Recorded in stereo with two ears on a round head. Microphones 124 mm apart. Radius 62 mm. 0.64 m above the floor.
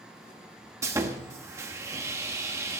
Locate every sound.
0.8 s sawing: 20° right (ahead or behind), 1.1 m